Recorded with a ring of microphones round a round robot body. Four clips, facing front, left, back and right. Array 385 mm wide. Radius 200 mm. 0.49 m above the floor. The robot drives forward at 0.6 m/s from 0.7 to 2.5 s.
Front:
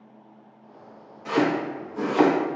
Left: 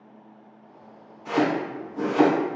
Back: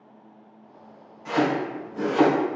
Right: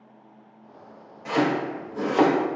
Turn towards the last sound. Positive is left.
turn(degrees=-90)